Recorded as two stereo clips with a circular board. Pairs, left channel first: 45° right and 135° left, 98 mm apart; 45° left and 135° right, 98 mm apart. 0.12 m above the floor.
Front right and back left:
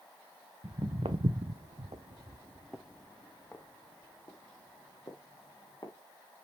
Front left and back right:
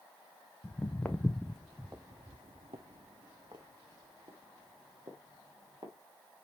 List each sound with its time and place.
0.6 s footsteps: 115° left, 1.2 m; by 5.9 s 100° right, 2.5 m